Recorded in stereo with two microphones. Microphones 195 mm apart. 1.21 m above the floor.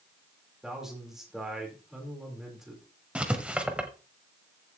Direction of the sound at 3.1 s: 5° right (ahead or behind).